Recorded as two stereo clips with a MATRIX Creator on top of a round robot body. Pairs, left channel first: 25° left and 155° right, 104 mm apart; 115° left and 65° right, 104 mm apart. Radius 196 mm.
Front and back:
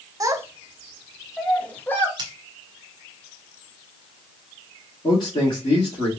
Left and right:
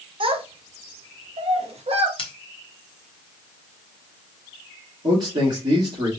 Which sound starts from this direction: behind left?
Scissors, at 2.2 s.